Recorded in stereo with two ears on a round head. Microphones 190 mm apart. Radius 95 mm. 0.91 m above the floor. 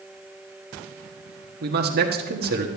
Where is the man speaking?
50° right (ahead or behind), 1.5 m.